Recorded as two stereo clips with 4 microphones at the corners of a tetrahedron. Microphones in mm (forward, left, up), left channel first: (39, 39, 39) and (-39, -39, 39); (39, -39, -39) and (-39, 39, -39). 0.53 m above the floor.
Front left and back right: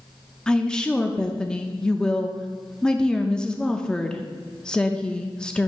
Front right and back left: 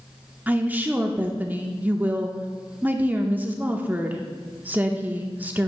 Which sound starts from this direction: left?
A woman speaking, at 0.5 s.